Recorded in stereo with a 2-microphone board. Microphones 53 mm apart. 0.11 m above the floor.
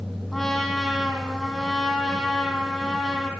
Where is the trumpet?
10° left (ahead or behind), 3.5 m.